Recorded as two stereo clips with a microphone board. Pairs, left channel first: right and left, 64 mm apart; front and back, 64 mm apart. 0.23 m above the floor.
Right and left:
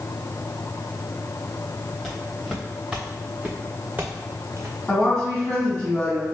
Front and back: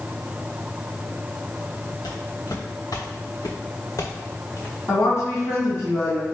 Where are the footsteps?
5° right, 1.9 m; by 4.8 s 50° left, 1.0 m.